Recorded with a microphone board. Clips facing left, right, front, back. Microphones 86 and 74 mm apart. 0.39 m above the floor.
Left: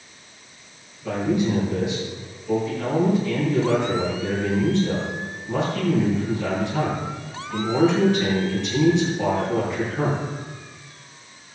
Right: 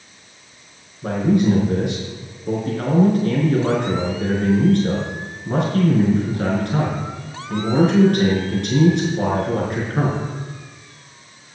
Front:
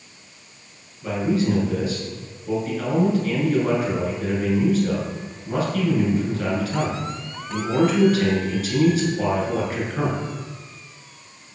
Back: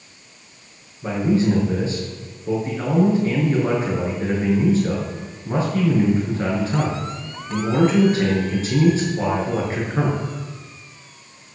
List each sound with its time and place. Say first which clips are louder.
1.0 s a man speaking: right 5 dB, back 3 dB; 115° right, 6 m